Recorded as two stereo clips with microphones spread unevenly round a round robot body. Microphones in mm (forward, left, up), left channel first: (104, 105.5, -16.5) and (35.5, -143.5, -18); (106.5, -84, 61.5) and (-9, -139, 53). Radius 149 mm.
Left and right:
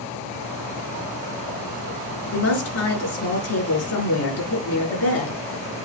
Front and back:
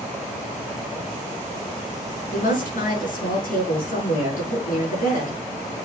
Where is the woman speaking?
50° left, 5.5 m.